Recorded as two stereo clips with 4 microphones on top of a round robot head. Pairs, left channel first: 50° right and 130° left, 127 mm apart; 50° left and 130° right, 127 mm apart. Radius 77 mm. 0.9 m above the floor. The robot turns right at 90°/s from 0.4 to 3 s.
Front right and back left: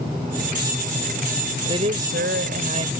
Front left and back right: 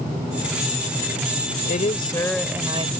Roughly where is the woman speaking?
Left.